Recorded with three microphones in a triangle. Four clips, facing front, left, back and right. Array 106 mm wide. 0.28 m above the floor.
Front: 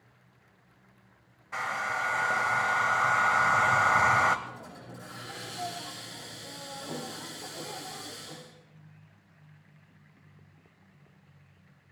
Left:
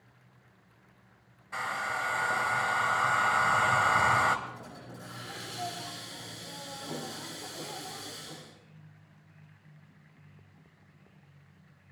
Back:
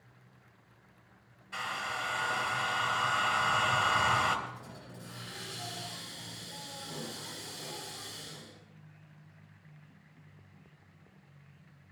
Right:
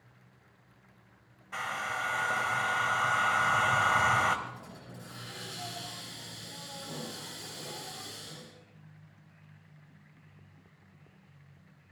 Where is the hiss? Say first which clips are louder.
Left 2 dB, front 3 dB; 30° left, 8 m.